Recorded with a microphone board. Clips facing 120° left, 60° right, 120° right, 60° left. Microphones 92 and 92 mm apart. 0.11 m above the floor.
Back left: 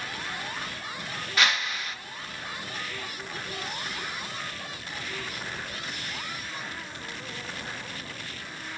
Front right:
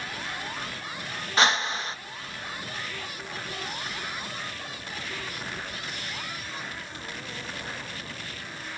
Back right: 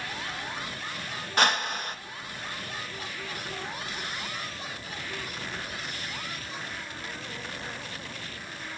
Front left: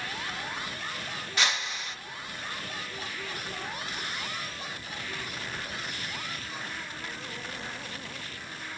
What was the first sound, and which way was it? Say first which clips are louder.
A whoosh: front right 4 dB, back right 6 dB; 105° right.